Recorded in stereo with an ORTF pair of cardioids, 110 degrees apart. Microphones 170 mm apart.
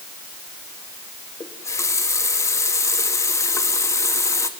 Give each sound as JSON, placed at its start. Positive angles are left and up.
{"t": 1.4, "sound": "a running tap", "azimuth_deg": 20, "distance_m": 2.0}